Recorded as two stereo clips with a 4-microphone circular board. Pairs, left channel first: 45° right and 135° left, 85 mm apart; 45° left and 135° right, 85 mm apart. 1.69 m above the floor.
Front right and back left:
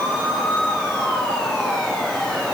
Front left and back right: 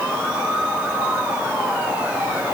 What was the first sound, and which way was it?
Only background noise.